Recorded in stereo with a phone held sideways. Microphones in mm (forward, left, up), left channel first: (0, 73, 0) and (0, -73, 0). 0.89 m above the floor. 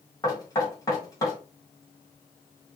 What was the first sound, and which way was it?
Knocking, 25° left (ahead or behind).